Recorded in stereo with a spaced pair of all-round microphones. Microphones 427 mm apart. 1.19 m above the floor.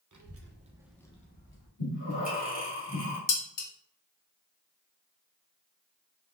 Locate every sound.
0.1 s a child speaking: 45° right (ahead or behind), 0.6 m; by 1.7 s 35° left (ahead or behind), 0.7 m
1.8 s breathing: 75° left (ahead or behind), 1.2 m
3.3 s dishes clattering: 75° left (ahead or behind), 0.5 m